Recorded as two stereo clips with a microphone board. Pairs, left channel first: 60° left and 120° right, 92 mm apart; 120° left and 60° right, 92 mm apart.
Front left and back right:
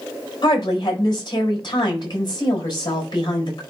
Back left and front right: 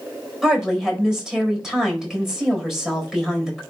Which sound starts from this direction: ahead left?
A woman speaking, at 0.4 s.